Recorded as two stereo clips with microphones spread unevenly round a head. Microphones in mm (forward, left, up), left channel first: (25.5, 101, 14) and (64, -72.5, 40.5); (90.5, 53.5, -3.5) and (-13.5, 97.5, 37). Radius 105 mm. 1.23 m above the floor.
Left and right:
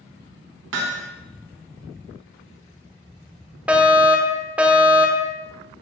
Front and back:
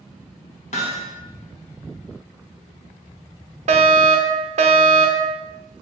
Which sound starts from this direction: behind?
A fire alarm, at 3.7 s.